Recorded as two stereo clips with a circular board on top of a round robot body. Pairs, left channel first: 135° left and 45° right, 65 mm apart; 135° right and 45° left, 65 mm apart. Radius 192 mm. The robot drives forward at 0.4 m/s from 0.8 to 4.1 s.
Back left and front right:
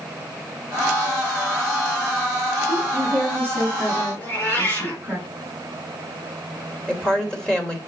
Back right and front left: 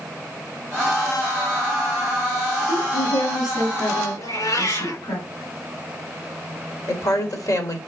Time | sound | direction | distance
2.7 | a woman speaking | 160° right | 5 m
4.2 | a cat meowing | 160° right | 4 m
6.9 | a woman speaking | 145° right | 2.5 m